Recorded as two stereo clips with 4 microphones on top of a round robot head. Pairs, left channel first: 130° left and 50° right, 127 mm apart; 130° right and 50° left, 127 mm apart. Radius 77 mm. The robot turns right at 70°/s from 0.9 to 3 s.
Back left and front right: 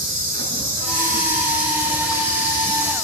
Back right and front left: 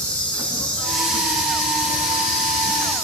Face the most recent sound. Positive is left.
turn(degrees=100)